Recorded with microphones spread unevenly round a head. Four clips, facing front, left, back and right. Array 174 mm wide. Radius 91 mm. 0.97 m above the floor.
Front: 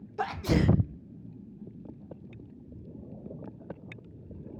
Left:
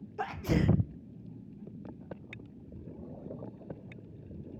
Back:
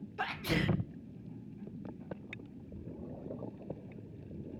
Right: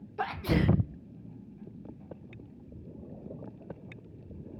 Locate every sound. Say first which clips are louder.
0.2 s a sneeze: right 2 dB, front 7 dB; 55° right